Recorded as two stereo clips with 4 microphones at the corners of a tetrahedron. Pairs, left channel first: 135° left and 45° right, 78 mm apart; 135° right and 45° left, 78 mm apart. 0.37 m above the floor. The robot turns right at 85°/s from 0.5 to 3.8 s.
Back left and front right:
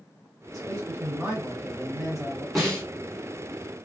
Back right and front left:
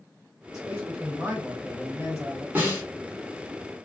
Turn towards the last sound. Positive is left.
turn(degrees=150)